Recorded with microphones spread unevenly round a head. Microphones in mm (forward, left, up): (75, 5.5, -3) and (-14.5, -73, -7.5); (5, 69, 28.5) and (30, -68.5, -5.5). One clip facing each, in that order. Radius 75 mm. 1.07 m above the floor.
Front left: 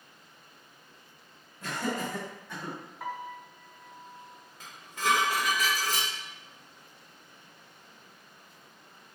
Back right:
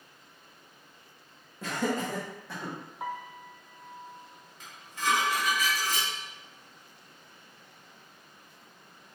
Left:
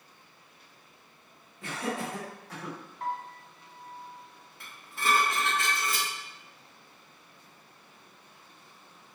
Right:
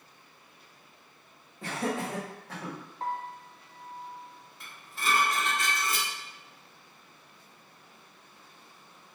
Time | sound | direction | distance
1.6 | laughter | 135° right | 1.3 m
3.0 | a piano | 80° right | 0.7 m
4.6 | dishes clattering | 65° left | 1.9 m